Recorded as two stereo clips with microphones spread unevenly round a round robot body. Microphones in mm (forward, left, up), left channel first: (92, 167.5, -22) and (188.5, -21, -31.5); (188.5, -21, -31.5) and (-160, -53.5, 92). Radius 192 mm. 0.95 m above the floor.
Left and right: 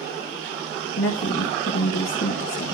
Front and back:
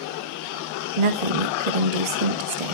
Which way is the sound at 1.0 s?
175° left.